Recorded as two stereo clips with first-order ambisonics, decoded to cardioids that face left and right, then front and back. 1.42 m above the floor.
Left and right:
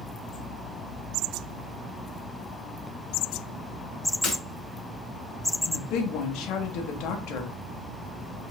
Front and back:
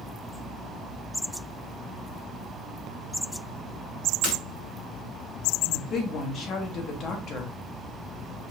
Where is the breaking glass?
30° left, 1.8 m.